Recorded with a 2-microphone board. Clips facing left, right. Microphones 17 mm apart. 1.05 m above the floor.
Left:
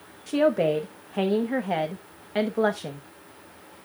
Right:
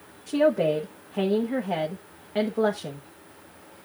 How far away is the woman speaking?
About 0.9 m.